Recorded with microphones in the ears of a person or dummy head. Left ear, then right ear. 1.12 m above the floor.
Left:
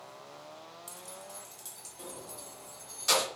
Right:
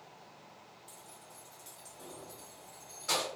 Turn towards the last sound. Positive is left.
turn(degrees=80)